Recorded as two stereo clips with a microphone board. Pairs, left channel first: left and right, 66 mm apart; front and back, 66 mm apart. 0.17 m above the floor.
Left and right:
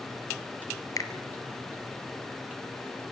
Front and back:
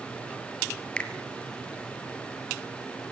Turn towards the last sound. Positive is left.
turn(degrees=70)